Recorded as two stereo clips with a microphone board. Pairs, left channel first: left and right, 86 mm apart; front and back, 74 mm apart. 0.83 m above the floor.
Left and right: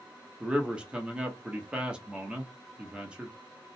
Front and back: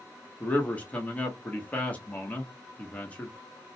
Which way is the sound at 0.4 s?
35° right.